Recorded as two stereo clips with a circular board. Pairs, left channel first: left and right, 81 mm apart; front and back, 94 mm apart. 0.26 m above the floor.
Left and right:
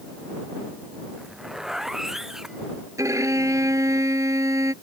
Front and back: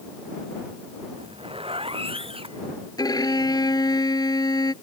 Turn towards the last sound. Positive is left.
turn(degrees=-45)